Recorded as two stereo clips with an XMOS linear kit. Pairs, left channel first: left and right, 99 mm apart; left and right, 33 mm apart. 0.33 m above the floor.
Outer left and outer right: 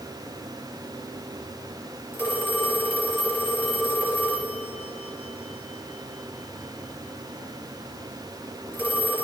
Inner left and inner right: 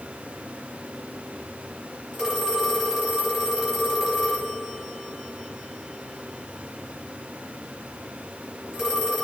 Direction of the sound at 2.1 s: 20° right (ahead or behind).